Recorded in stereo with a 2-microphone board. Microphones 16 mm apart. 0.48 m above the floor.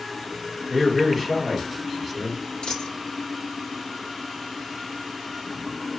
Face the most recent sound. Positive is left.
turn(degrees=80)